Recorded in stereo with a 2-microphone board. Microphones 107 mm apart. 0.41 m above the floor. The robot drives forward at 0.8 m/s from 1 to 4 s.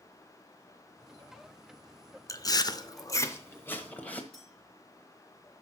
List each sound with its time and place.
2.3 s chewing: 30° left (ahead or behind), 0.6 m; by 4.2 s 15° left (ahead or behind), 1.2 m
4.3 s a clink: 5° left (ahead or behind), 6 m